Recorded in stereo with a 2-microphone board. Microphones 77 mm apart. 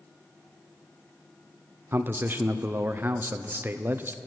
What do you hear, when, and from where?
1.9 s a man speaking: 30° right (ahead or behind), 0.6 m